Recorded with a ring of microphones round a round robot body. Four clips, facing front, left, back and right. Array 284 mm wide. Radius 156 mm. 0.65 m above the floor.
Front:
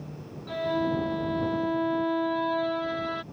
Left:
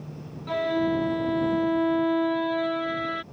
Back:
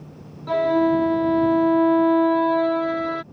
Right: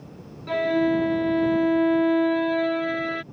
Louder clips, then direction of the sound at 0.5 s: Right 3 dB, back 9 dB; 160° right.